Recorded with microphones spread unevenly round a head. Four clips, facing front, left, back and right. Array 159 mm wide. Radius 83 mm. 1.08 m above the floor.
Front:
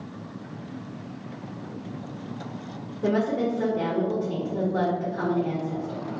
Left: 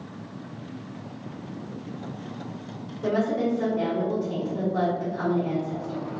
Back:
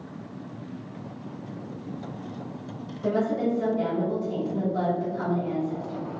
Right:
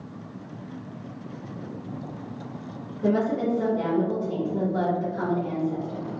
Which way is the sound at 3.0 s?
15° right.